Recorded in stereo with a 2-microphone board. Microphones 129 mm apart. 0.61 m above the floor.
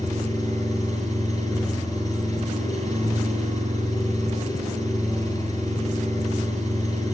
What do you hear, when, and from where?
0.0 s an engine running: 25° left (ahead or behind), 6.5 m